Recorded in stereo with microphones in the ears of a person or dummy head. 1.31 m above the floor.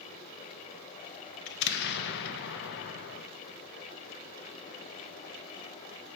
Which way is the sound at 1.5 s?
60° left (ahead or behind).